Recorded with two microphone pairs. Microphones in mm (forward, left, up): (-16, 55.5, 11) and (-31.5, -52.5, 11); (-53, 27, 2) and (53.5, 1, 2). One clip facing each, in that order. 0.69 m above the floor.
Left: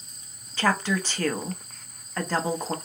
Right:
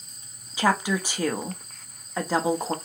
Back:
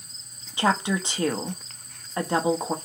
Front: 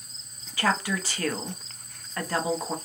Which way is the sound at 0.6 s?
165° right.